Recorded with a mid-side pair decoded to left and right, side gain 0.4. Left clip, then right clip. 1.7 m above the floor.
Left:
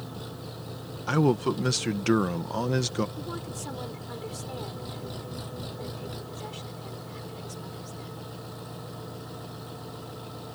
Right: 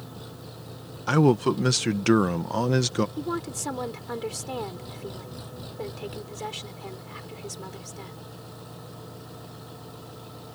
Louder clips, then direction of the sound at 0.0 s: Left 3 dB; 20° left.